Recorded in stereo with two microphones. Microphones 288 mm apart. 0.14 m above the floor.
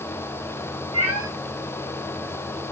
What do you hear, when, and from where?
0.9 s a cat meowing: 55° right (ahead or behind), 1.9 m